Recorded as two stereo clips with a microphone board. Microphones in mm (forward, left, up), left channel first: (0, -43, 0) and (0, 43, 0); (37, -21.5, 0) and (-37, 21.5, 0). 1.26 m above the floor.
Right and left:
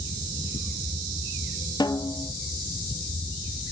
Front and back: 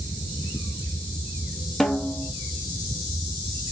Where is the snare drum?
115° right, 1.3 m.